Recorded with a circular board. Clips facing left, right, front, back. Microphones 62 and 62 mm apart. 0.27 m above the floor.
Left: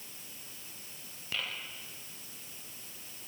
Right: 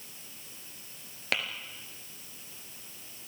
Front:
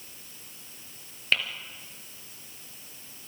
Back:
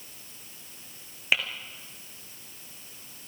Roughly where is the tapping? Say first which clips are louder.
Right 6 dB, back 1 dB; right.